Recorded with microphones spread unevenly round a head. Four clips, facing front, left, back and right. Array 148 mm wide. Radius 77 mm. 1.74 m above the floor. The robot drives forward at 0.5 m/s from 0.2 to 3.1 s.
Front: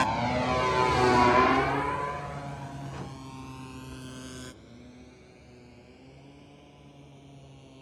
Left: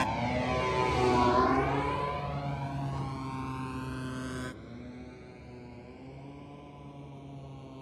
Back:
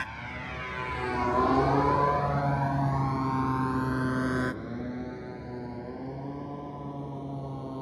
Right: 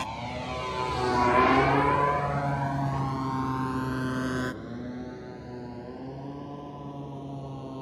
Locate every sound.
0.0 s a motorcycle: 30° left; by 7.8 s 140° right